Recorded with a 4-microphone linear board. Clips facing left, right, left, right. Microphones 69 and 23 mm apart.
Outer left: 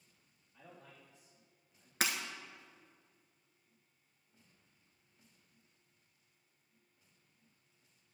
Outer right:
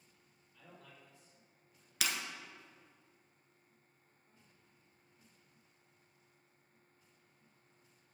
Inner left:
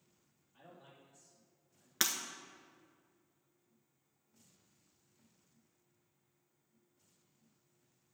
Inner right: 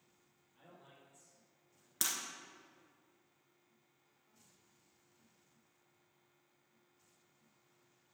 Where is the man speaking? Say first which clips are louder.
Outer left 1 dB, inner left 2 dB; 25° left (ahead or behind), 3 m.